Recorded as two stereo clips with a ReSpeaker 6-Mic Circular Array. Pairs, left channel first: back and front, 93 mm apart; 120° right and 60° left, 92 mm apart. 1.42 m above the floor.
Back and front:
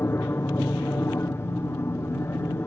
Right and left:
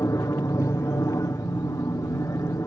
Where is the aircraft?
140° right.